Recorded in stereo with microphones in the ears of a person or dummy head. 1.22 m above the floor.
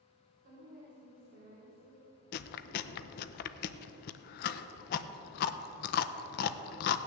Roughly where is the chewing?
Left.